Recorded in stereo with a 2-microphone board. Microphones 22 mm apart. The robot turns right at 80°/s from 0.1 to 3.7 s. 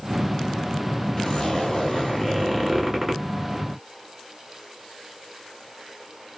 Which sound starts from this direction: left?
A zipper, at 1.2 s.